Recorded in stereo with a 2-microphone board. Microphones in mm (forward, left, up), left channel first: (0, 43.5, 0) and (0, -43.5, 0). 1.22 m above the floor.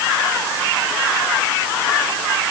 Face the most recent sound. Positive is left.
No sound to turn to.